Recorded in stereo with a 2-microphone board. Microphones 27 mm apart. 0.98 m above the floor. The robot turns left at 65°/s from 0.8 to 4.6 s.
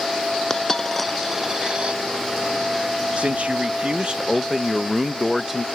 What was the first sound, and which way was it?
A dropped coin, 25° left (ahead or behind).